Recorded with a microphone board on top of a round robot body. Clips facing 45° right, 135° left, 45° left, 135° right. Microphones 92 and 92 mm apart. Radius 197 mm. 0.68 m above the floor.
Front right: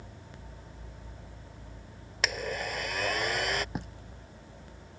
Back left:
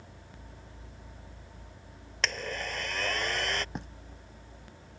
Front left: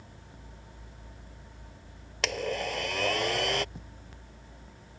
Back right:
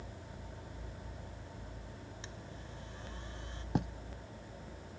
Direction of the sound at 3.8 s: 130° right.